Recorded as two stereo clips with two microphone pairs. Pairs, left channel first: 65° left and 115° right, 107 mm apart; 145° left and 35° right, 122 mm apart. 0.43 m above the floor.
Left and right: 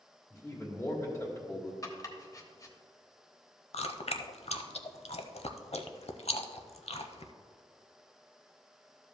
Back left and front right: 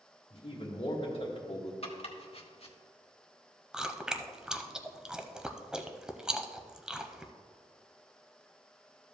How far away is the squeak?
I don't hear a squeak.